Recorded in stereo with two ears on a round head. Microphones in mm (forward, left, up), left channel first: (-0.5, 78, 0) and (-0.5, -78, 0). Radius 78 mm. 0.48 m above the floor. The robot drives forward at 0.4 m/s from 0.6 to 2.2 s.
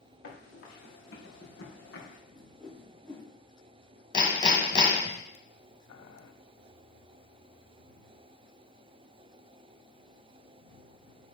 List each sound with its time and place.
0.2 s running footsteps: 60° left (ahead or behind), 4.5 m; by 2.2 s 65° left (ahead or behind), 3 m
2.3 s a whoosh: 5° left (ahead or behind), 4.5 m
4.1 s hammering: 25° left (ahead or behind), 1.6 m
5.9 s boiling: 85° left, 1.0 m